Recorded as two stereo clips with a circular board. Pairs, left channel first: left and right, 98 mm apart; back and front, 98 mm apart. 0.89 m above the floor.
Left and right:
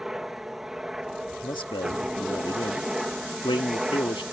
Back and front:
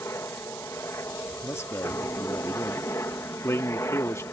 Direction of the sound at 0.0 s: 170° right.